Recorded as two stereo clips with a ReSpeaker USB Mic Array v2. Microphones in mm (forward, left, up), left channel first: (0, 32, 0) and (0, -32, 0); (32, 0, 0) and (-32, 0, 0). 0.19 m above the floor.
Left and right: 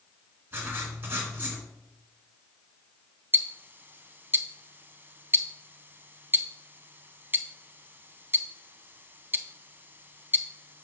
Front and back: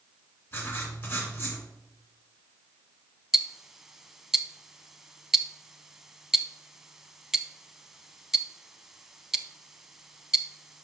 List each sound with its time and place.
0.5 s writing: 40° right, 2 m
3.3 s ticking: 100° right, 0.5 m